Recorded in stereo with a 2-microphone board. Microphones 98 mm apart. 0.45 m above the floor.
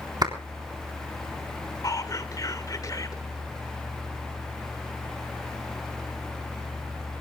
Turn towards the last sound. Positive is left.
turn(degrees=35)  # may be behind; listen again after turning